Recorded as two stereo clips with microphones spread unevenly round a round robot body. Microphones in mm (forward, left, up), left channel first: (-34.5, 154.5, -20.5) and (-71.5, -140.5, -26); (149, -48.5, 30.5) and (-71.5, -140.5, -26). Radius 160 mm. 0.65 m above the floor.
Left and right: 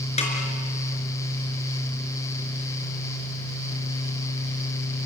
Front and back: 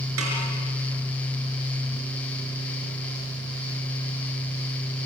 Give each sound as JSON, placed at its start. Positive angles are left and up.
{"t": 0.2, "sound": "a snare drum", "azimuth_deg": 150, "distance_m": 5.0}